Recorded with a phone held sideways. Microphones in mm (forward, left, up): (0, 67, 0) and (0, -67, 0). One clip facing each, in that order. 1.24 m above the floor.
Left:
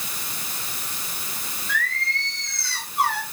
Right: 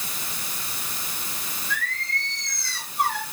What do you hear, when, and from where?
1.7 s singing: 75° left (ahead or behind), 4.5 m